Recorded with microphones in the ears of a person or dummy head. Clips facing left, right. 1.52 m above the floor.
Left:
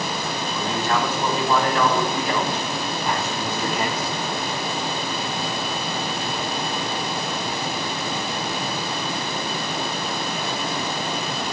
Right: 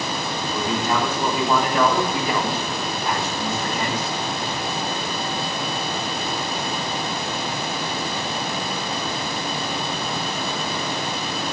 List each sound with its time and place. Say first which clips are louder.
0.5 s a man speaking: right 1 dB; 15° right (ahead or behind), 5 m; by 4.1 s 10° left (ahead or behind), 4 m